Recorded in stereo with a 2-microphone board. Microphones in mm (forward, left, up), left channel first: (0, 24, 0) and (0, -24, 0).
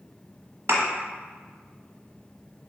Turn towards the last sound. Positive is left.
turn(degrees=-75)  # may be behind; listen again after turning